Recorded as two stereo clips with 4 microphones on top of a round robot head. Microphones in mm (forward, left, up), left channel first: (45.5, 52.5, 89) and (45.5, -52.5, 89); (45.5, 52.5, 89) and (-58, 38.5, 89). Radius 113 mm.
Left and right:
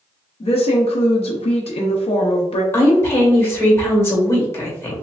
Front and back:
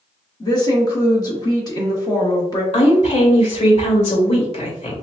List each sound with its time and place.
0.4 s a woman speaking: 60° left, 0.8 m
2.7 s a woman speaking: 25° left, 2.0 m